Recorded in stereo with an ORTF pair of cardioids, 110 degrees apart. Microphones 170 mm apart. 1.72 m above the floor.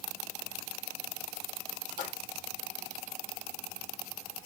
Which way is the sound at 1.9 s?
50° left.